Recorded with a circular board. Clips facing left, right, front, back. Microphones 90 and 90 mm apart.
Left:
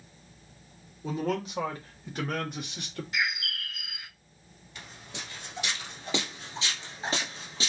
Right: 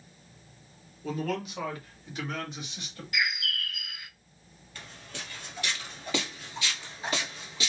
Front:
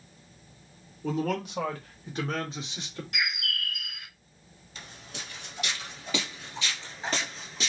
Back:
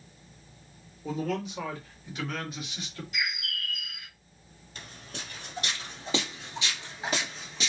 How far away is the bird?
About 1.2 m.